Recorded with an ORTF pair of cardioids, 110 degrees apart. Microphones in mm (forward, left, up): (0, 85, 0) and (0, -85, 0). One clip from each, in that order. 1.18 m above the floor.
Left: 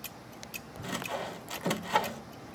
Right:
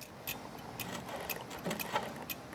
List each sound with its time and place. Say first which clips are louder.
0.8 s sawing: left 8 dB; 40° left